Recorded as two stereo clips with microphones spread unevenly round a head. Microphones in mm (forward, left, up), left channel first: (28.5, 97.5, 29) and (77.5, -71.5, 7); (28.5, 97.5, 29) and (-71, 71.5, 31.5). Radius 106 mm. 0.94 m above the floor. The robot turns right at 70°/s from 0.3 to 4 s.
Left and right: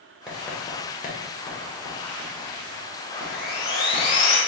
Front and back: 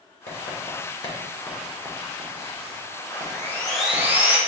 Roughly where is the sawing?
Ahead left.